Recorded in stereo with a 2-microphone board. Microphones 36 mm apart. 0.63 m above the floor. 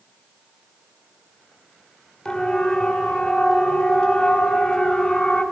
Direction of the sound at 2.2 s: 25° left (ahead or behind).